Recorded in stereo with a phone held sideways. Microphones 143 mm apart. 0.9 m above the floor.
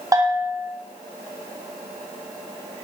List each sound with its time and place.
0.1 s a bell: 25° right (ahead or behind), 4.5 m